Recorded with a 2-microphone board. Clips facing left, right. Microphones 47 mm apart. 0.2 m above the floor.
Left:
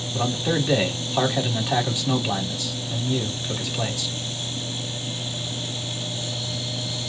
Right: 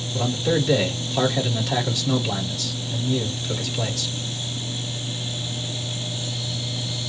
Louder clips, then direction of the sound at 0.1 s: Right 2 dB; 20° left (ahead or behind).